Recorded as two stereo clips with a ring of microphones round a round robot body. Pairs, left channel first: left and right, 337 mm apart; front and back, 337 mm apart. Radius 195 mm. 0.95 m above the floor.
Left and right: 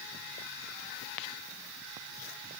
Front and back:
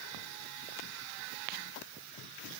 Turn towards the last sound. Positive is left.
No sound to turn to.